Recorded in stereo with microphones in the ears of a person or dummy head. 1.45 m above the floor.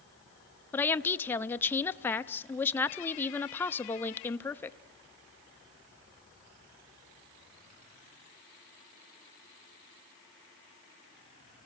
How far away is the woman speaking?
About 0.6 m.